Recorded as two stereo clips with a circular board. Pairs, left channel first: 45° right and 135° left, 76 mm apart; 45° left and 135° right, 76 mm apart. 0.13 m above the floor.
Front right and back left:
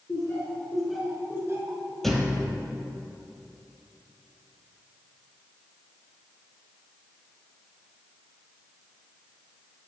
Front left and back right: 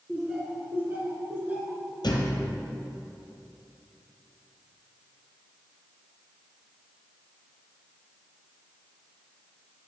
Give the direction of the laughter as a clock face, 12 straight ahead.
2 o'clock.